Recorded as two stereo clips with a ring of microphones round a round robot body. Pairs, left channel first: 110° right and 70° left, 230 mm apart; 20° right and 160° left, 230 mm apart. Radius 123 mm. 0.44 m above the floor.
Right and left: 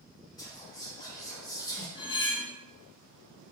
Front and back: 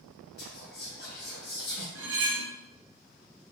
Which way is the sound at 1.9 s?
175° left.